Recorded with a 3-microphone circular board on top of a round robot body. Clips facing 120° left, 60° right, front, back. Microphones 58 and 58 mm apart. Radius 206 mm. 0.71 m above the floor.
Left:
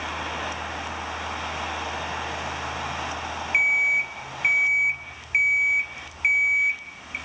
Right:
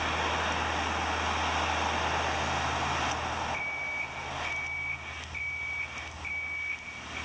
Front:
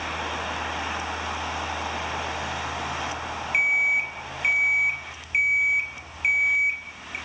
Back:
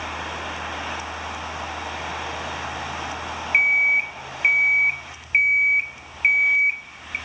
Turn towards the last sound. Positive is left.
turn(degrees=130)